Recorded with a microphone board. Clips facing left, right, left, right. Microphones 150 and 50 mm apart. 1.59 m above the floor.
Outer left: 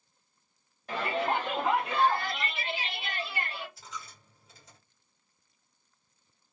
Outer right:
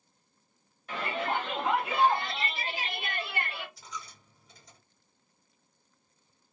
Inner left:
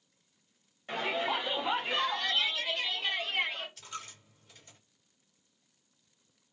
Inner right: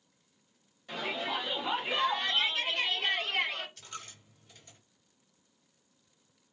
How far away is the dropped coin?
About 1.6 m.